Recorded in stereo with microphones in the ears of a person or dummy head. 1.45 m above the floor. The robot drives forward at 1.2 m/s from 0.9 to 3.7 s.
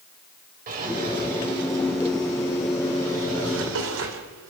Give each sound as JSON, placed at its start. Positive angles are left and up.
{"t": 0.7, "sound": "a drawer", "side_deg": -50, "distance_m": 4.5}